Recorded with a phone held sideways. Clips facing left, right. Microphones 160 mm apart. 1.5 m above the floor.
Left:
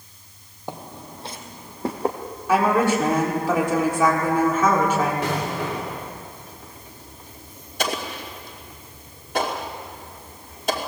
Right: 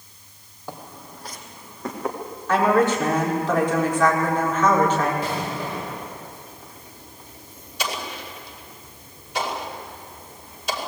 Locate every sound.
0.7 s footsteps: 20° left (ahead or behind), 1.8 m; by 2.2 s 30° left (ahead or behind), 3 m
2.5 s a woman speaking: 10° left (ahead or behind), 4.5 m
5.2 s an explosion: 75° left (ahead or behind), 3.5 m
7.8 s an explosion: 50° left (ahead or behind), 2.5 m